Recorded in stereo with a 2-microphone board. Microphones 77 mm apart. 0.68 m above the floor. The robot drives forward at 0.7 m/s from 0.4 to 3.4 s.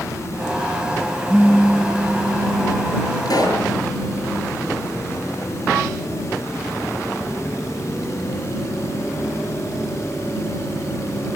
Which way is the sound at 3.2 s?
60° left (ahead or behind).